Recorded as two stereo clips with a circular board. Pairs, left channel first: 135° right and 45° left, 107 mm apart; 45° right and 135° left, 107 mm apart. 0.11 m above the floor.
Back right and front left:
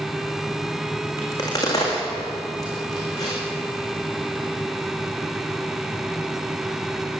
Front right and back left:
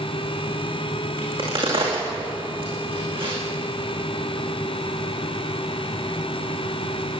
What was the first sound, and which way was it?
A crack, 170° left.